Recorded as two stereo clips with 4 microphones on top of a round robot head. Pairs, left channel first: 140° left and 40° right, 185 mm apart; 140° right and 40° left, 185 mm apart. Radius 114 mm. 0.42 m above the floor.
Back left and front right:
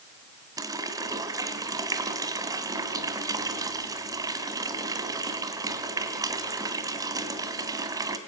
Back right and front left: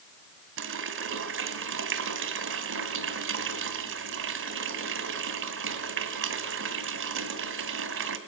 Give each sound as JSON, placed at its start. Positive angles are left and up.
{"t": 0.6, "sound": "a running tap", "azimuth_deg": 30, "distance_m": 2.0}